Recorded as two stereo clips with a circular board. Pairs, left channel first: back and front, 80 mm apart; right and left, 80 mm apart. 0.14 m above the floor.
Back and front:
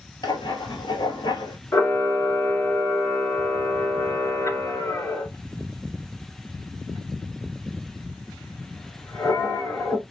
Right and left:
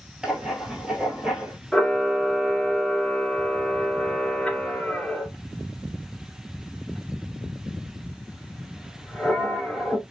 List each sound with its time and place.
0.2 s writing: 170° left, 0.8 m
1.7 s a camera shutter: 170° right, 1.6 m